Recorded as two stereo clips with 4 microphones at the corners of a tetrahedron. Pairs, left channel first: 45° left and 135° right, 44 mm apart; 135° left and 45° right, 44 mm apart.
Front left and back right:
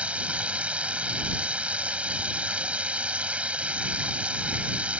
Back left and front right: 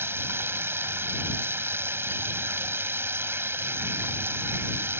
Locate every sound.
0.0 s running water: 75° right